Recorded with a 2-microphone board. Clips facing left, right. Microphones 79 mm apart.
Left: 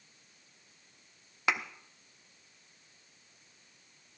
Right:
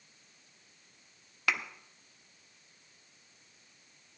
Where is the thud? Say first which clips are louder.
Left 1 dB; 20° left (ahead or behind), 1.0 m.